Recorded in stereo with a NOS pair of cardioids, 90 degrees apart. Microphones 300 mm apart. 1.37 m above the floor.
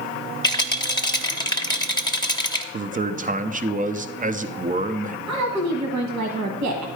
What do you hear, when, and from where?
0.4 s a rattle: 15° left, 0.9 m
2.7 s a man speaking: 25° right, 0.6 m
5.3 s a woman speaking: 65° right, 1.3 m